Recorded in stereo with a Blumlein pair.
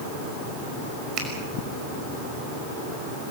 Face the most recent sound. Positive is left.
turn(degrees=-35)